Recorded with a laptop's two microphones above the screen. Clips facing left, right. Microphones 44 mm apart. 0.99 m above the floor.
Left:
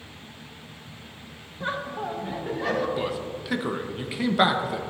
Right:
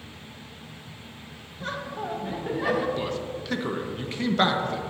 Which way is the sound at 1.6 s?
20° left (ahead or behind).